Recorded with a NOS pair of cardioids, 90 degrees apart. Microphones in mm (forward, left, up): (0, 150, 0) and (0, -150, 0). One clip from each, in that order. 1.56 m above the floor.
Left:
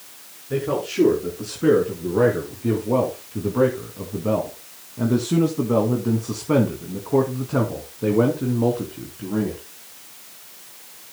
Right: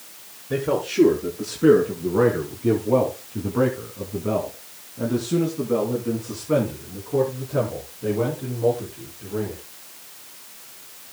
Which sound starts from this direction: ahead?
A man speaking, at 0.5 s.